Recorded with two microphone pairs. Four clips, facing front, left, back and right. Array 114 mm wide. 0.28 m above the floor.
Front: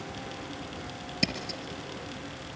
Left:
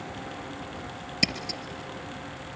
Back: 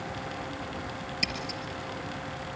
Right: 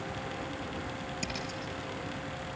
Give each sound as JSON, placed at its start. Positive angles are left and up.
{"t": 1.2, "sound": "scissors", "azimuth_deg": 40, "distance_m": 3.5}